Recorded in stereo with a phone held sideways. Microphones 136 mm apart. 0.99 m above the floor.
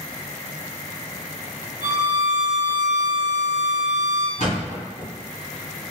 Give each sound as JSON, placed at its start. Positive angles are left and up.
{"t": 1.8, "sound": "a violin", "side_deg": -70, "distance_m": 1.6}
{"t": 4.4, "sound": "a thud", "side_deg": 65, "distance_m": 1.6}